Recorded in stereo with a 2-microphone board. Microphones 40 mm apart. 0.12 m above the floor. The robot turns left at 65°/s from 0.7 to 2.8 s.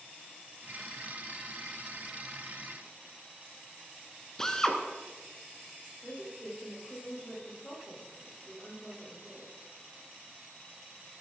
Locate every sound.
4.4 s a drill: 15° left (ahead or behind), 1.8 m
6.0 s a woman speaking: 25° left (ahead or behind), 8 m